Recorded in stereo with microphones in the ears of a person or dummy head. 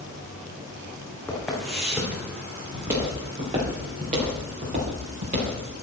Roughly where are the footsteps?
Centre.